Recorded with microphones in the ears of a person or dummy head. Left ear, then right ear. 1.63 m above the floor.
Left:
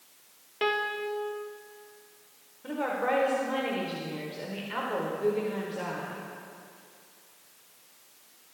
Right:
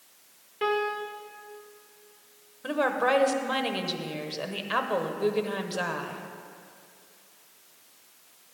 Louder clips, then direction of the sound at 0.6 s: Right 1 dB; 20° left (ahead or behind).